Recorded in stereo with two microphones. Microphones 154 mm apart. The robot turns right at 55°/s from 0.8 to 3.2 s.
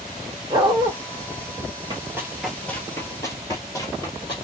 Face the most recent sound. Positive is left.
turn(degrees=25)  # may be behind; listen again after turning